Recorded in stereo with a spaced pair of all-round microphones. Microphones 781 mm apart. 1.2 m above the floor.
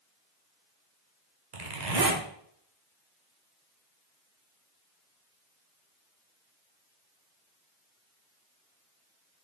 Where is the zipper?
65° right (ahead or behind), 1.3 m.